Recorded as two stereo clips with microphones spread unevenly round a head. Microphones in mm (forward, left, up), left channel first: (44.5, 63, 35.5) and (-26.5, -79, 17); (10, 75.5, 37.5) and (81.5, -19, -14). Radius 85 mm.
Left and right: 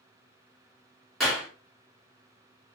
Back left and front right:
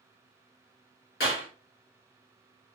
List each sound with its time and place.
1.2 s a clap: 155° left, 2.5 m